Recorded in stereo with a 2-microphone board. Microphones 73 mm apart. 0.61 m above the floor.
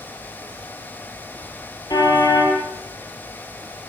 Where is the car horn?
55° left (ahead or behind), 7.5 m.